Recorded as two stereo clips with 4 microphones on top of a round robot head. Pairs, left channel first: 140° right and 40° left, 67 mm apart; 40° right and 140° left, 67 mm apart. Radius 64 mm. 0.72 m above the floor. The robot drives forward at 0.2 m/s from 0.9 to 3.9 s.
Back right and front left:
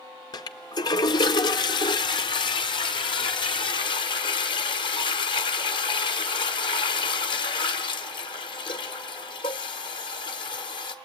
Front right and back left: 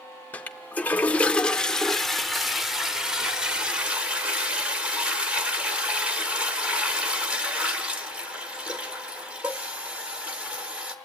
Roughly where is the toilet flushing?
Right.